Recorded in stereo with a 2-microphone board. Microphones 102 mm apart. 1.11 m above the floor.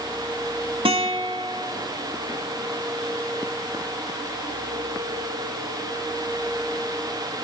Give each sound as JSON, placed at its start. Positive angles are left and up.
{"t": 0.8, "sound": "a guitar", "side_deg": -65, "distance_m": 1.7}